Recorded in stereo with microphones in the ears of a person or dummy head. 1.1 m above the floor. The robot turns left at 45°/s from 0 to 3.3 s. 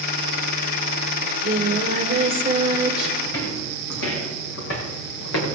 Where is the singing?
90° right, 1.1 m; by 3.1 s 175° right, 1.1 m.